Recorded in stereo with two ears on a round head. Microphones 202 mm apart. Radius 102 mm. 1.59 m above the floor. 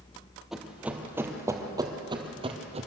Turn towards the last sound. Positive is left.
turn(degrees=-30)  # may be behind; listen again after turning